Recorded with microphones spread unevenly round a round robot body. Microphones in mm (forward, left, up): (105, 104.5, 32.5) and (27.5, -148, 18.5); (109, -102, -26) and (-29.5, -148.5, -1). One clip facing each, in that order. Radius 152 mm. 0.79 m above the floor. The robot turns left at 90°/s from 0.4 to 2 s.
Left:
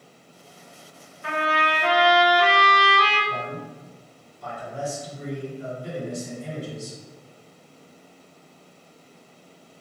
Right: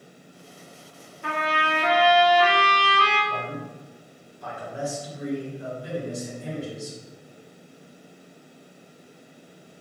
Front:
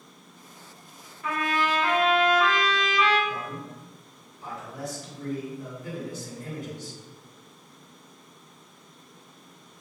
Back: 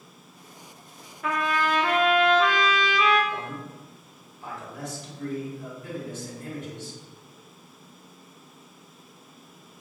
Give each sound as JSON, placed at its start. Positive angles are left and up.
{"t": 1.2, "sound": "a trumpet", "azimuth_deg": -140, "distance_m": 0.6}
{"t": 3.3, "sound": "a man speaking", "azimuth_deg": -20, "distance_m": 1.9}